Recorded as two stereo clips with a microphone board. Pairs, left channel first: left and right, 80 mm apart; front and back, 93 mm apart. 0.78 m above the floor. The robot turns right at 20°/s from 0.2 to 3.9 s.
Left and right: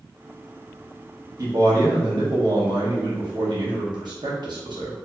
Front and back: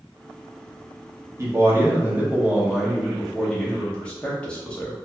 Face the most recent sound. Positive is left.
turn(degrees=-80)